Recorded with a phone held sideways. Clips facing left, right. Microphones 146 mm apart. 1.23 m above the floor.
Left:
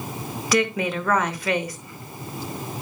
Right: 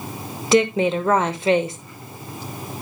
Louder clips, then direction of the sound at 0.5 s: Right 6 dB; 25° right (ahead or behind).